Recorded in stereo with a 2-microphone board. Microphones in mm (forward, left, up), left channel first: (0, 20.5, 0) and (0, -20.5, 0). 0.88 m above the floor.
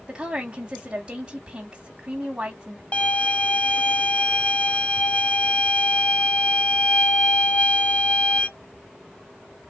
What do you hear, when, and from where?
0.1 s a woman speaking: 25° right (ahead or behind), 1.9 m
2.9 s a violin: 30° left (ahead or behind), 0.7 m